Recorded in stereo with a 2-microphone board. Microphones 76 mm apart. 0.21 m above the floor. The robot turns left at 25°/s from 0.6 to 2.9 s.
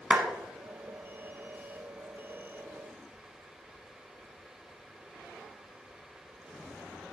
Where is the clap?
15° right (ahead or behind), 1.2 m.